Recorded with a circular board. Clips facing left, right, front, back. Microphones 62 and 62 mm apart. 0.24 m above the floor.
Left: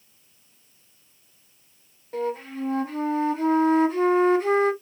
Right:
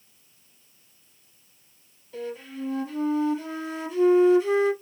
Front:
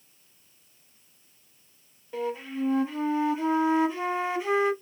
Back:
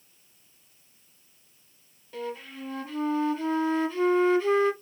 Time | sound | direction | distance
2.1 | a flute | 70° left | 1.0 m